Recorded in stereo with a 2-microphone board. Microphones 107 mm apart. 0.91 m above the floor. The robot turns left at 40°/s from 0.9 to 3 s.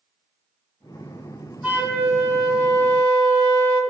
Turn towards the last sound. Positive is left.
turn(degrees=-65)